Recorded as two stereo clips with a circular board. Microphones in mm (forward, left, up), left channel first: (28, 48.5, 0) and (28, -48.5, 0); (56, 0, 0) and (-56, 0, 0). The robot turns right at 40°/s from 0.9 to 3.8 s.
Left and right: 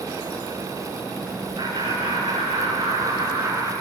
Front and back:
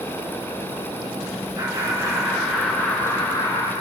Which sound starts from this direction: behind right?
Laughter, at 1.6 s.